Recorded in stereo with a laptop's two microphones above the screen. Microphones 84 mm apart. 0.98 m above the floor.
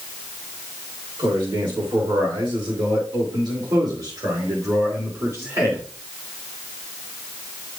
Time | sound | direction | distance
1.2 | a man speaking | 75° right (ahead or behind) | 3 m